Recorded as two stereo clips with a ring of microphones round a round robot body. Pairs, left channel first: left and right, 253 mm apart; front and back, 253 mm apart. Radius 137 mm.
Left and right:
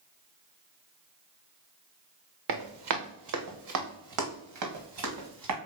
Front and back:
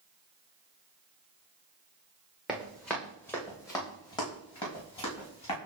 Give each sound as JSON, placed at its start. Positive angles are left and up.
{"t": 2.5, "sound": "running footsteps", "azimuth_deg": -90, "distance_m": 2.0}